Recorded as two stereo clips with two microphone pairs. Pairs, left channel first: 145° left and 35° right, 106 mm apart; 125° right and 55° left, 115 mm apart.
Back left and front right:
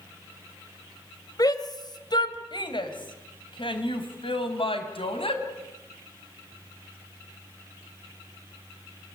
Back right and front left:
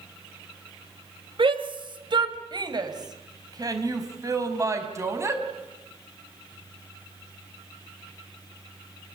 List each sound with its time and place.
1.4 s a shout: 90° left, 3 m; by 5.4 s 120° left, 4.5 m